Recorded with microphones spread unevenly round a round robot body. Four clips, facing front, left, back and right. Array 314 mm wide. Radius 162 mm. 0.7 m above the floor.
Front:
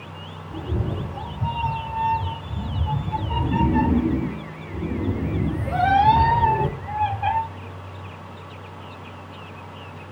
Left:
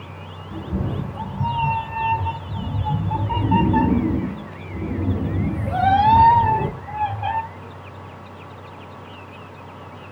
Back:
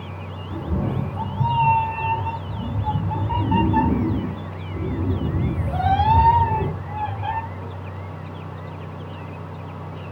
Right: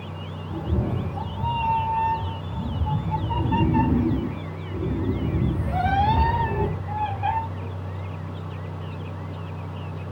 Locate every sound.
0.5 s a cat meowing: 175° left, 1.7 m; by 7.4 s 60° left, 3.5 m